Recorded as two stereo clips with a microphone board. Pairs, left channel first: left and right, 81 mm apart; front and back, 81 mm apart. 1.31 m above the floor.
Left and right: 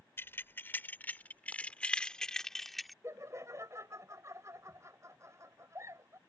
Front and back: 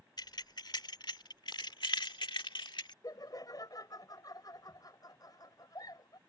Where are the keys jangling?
30° left; by 2.9 s straight ahead.